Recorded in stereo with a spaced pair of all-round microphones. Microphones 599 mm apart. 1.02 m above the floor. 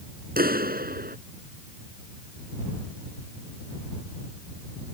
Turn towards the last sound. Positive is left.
turn(degrees=-15)  # may be behind; listen again after turning